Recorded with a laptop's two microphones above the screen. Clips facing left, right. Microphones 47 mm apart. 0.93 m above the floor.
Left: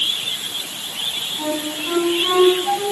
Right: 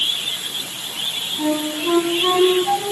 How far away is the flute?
About 5.5 m.